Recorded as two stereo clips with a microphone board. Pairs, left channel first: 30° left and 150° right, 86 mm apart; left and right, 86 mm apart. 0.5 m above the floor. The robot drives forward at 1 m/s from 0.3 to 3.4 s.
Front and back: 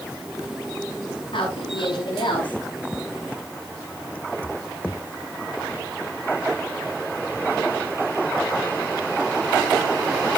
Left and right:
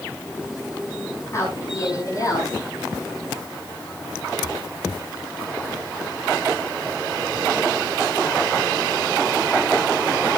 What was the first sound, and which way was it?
A woman speaking, 40° left.